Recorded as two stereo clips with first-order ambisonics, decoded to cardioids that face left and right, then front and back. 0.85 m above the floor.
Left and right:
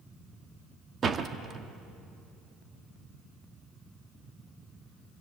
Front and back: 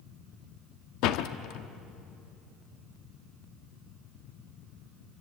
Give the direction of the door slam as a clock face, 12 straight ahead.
1 o'clock.